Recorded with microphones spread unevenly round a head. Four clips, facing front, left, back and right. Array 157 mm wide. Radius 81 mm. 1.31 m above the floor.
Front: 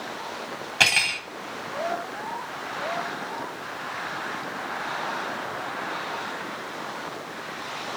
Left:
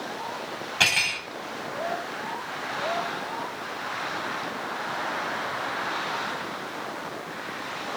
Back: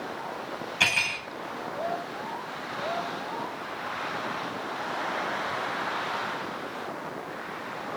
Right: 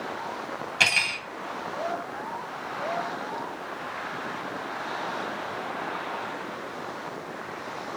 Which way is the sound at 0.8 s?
Straight ahead.